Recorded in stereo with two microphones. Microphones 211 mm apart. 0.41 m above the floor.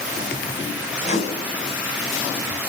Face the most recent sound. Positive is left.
turn(degrees=30)  # may be behind; listen again after turning